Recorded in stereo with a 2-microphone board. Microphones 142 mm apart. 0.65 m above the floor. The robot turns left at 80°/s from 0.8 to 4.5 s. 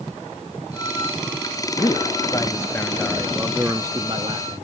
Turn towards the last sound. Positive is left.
turn(degrees=-25)  # may be behind; listen again after turning